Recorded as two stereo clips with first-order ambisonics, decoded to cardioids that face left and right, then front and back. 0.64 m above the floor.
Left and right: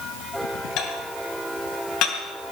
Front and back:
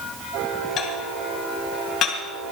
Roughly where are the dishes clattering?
Ahead left.